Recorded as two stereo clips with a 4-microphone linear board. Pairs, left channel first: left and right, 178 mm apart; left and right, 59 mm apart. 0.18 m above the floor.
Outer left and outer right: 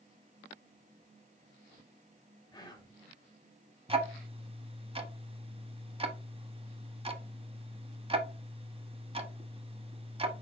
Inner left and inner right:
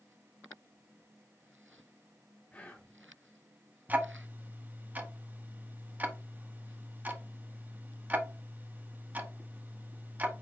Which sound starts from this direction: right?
Ticking, at 3.9 s.